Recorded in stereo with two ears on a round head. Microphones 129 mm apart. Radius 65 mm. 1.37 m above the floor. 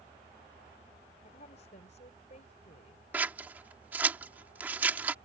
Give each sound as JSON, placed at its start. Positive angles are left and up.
{"t": 1.2, "sound": "a woman speaking", "side_deg": 50}
{"t": 3.1, "sound": "scissors", "side_deg": -15}